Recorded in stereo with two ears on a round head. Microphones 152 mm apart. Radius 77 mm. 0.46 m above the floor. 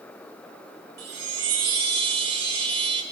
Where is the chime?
70° right (ahead or behind), 1.2 m.